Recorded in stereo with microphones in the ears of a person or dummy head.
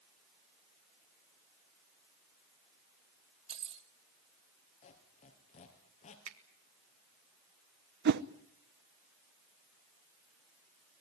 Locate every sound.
3.5 s keys jangling: 35° right (ahead or behind), 1.9 m
4.8 s a squeak: 35° left (ahead or behind), 3 m
6.3 s a finger snap: 80° right, 1.7 m
8.1 s a whoosh: 60° right (ahead or behind), 0.8 m